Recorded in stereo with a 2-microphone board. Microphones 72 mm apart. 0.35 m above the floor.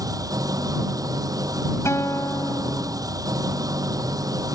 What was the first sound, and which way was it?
An engine running, 55° right (ahead or behind).